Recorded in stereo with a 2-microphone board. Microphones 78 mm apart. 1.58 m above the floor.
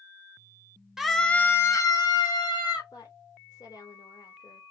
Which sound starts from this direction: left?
A woman speaking, at 2.9 s.